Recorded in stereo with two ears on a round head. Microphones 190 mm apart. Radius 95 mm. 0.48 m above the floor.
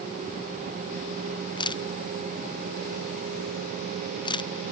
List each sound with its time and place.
1.6 s a camera shutter: 20° left (ahead or behind)